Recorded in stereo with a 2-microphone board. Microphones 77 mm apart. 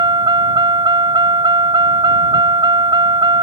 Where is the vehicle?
80° right.